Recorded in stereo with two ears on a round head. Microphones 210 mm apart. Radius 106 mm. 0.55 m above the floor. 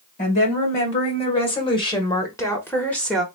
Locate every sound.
0.2 s a woman speaking: 35° left (ahead or behind), 2.5 m; by 3.2 s centre (ahead or behind), 1.3 m